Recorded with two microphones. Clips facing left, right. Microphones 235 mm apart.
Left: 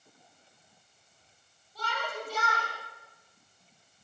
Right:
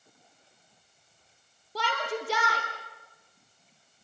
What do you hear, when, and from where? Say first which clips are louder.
1.8 s a shout: right 6 dB; 80° right, 4.5 m